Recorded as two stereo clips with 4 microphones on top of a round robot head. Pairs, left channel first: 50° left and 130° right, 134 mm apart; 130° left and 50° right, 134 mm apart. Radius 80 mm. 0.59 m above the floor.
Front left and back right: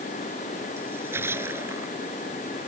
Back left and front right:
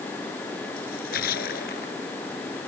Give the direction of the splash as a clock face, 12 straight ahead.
7 o'clock.